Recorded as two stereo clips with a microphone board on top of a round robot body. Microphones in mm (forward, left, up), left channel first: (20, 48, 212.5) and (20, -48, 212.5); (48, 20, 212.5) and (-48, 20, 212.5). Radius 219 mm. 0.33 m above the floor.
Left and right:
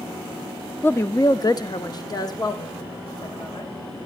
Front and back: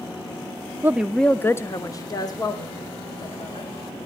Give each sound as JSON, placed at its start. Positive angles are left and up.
{"t": 0.8, "sound": "a woman speaking", "azimuth_deg": 140, "distance_m": 0.9}